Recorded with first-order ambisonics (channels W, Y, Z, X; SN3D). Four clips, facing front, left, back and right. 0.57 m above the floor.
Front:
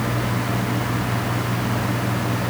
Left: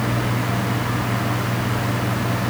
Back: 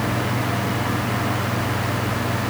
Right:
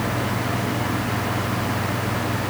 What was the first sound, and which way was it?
Only background noise.